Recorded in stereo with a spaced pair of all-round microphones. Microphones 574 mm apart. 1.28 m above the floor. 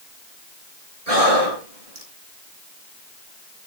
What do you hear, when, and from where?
1.1 s breathing: 80° right, 5.5 m